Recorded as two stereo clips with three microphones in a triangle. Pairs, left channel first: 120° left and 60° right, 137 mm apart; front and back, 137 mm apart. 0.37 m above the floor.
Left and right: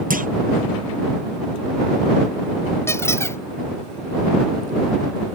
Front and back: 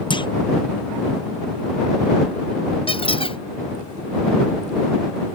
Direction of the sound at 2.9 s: 50° left.